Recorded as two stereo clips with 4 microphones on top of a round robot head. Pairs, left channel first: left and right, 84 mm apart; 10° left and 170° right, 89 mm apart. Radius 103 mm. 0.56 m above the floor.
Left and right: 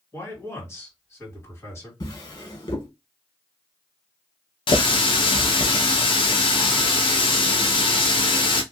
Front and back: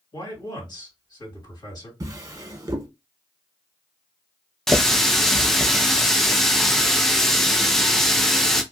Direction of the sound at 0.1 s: 40° left.